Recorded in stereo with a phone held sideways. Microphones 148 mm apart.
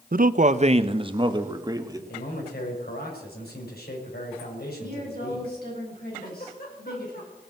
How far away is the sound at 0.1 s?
About 0.6 m.